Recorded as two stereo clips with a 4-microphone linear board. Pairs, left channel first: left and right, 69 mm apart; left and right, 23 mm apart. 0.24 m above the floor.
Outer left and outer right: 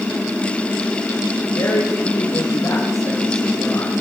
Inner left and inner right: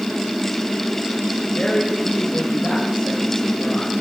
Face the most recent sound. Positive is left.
turn(degrees=75)  # may be behind; listen again after turning